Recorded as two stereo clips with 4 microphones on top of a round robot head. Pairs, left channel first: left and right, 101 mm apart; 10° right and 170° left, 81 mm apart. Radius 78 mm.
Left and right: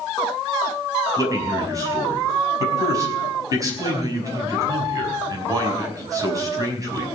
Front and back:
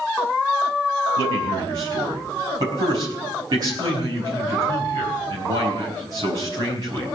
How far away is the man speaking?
About 5.5 m.